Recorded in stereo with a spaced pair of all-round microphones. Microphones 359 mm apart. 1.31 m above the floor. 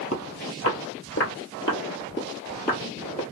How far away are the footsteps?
About 1.8 m.